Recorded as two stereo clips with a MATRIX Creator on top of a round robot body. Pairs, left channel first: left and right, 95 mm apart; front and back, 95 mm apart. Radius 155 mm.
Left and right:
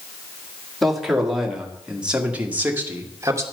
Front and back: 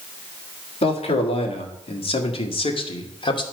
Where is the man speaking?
Straight ahead, 2.5 m; by 3.4 s 30° right, 1.5 m.